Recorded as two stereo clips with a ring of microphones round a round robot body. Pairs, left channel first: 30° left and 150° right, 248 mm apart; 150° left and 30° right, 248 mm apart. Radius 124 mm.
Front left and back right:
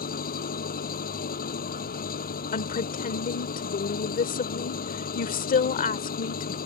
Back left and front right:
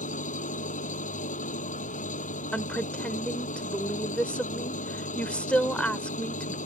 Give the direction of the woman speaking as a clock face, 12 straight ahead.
10 o'clock.